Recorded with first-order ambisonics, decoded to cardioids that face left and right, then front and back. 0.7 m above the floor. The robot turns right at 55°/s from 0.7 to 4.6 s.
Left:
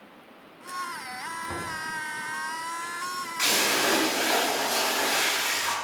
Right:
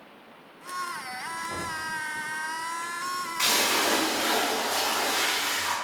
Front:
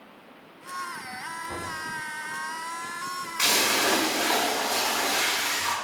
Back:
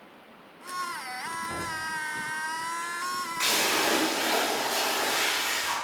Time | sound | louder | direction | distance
1.5 | knocking | even, back 1 dB | 75° left | 1.4 m
3.4 | a splash | even, front 3 dB | 15° left | 1.5 m